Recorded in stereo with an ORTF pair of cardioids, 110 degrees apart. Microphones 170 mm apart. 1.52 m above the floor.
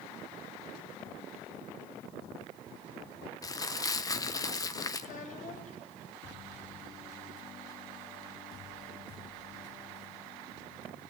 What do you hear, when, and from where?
3.4 s crumpling: 20° left, 1.1 m
5.0 s a child speaking: 50° left, 4 m